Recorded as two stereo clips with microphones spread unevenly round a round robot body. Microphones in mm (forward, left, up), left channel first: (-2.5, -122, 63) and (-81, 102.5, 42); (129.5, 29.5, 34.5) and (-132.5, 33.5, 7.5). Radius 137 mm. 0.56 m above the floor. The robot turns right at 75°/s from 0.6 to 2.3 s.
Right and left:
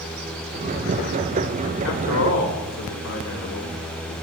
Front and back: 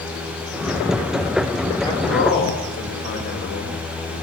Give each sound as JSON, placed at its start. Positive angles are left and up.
{"t": 1.8, "sound": "a man speaking", "azimuth_deg": -80, "distance_m": 2.5}